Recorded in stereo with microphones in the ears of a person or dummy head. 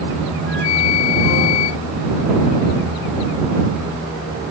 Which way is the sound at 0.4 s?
80° left.